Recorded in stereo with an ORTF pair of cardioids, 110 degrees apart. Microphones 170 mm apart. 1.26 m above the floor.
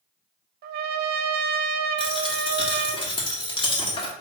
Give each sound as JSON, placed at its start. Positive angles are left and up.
{"t": 0.6, "sound": "a trumpet", "azimuth_deg": -65, "distance_m": 0.6}
{"t": 2.0, "sound": "a dropped coin", "azimuth_deg": 30, "distance_m": 1.6}